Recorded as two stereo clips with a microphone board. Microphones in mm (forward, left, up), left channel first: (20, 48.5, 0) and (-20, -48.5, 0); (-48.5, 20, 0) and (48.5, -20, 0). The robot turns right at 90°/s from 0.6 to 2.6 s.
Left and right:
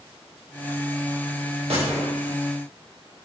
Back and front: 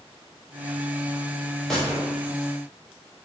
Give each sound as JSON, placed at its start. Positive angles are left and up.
{"t": 1.7, "sound": "a gunshot", "azimuth_deg": -115, "distance_m": 4.5}